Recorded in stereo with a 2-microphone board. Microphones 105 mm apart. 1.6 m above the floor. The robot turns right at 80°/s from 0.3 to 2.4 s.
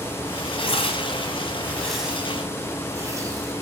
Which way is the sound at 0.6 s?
55° left (ahead or behind).